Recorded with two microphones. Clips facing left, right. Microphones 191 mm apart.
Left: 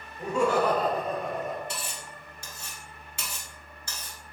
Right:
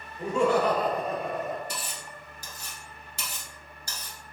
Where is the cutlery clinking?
40° right (ahead or behind), 1.2 m.